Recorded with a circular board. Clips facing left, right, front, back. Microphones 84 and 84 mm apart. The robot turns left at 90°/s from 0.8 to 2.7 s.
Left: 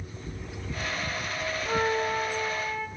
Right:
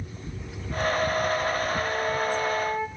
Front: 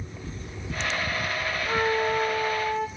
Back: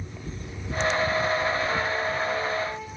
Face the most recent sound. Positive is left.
turn(degrees=-30)